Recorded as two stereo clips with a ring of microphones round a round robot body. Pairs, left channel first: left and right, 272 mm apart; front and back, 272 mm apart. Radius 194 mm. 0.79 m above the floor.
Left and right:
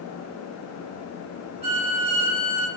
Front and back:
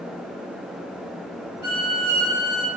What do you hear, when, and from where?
1.6 s a violin: 25° right, 2 m